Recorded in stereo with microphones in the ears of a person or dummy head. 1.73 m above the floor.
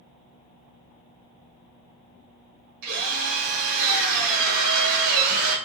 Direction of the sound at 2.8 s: 55° right (ahead or behind).